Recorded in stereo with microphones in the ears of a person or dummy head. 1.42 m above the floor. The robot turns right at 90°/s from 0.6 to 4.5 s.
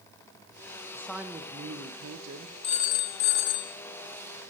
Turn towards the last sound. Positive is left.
turn(degrees=-150)